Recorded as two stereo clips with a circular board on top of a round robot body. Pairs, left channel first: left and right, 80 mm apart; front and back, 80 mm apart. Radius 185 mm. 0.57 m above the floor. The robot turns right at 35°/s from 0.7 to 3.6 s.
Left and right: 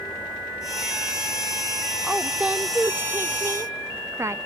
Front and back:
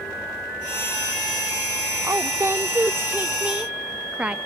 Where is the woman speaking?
165° right, 0.6 m; by 4.4 s 110° right, 0.6 m.